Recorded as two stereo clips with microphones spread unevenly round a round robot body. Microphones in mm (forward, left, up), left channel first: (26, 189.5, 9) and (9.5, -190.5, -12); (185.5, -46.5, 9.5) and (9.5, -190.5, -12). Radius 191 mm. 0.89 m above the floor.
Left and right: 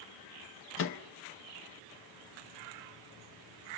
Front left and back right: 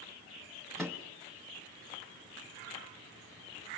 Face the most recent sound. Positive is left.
turn(degrees=135)